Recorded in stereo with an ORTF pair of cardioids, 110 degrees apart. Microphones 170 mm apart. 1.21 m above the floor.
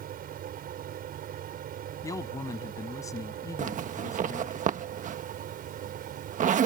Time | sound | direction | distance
0.0 | a fan | 60° right | ?
2.0 | a man speaking | 20° left | ?
3.6 | a zipper | 50° right | ?